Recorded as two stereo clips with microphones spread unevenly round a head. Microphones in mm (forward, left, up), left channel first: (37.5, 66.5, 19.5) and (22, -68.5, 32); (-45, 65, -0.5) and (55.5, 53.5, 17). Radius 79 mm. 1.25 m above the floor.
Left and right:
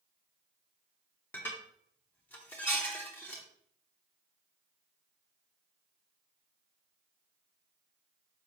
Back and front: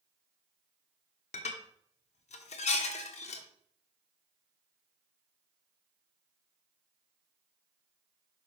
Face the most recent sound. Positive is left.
turn(degrees=165)